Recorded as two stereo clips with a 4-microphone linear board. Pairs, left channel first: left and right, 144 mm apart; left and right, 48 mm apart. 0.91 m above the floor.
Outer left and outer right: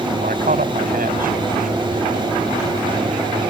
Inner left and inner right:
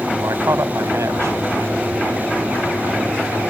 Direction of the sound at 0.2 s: 80° right.